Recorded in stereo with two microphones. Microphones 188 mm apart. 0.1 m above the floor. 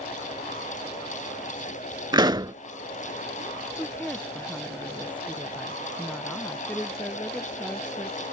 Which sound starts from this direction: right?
A pop, at 2.1 s.